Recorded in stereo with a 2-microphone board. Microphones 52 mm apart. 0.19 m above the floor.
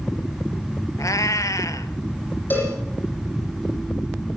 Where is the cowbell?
35° left (ahead or behind), 10 m.